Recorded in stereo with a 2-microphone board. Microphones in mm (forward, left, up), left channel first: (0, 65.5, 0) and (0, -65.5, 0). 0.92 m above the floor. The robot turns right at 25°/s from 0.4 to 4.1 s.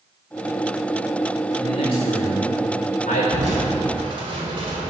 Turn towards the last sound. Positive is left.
turn(degrees=-45)  # may be behind; listen again after turning